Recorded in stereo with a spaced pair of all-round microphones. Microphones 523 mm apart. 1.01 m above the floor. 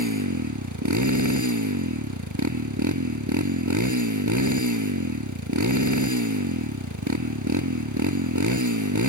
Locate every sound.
0.0 s a motorcycle: 35° right (ahead or behind)